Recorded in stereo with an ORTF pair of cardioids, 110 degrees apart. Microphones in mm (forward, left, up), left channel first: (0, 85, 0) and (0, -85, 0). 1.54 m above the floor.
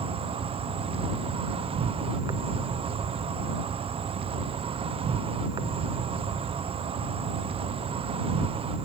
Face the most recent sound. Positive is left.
turn(degrees=-35)